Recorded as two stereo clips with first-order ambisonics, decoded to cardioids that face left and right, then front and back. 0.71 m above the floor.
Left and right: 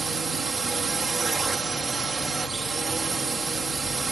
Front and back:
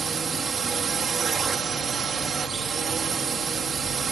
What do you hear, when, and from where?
0.0 s a drone: 145° right